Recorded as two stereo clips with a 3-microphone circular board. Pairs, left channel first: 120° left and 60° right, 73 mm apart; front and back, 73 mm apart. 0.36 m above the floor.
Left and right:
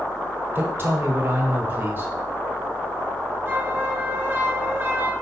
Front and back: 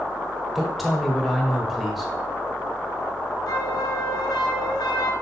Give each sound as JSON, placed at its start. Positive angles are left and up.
{"t": 0.6, "sound": "a woman speaking", "azimuth_deg": -95, "distance_m": 1.7}
{"t": 3.5, "sound": "a flute", "azimuth_deg": 0, "distance_m": 1.3}